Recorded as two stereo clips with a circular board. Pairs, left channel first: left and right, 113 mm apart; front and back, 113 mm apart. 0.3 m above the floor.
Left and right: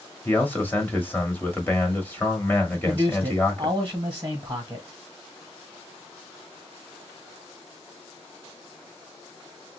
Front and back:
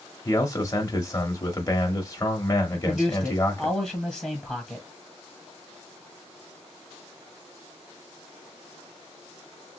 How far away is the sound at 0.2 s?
About 1.0 m.